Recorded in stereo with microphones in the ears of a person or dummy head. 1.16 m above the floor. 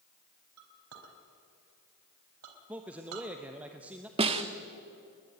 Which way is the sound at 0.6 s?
80° right.